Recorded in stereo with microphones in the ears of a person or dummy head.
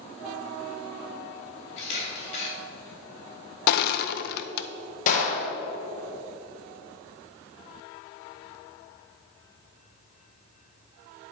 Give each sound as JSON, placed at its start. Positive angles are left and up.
{"t": 1.8, "sound": "a camera shutter", "side_deg": 40, "distance_m": 3.0}
{"t": 3.7, "sound": "crushing", "side_deg": 60, "distance_m": 0.5}
{"t": 5.1, "sound": "a gunshot", "side_deg": 50, "distance_m": 1.7}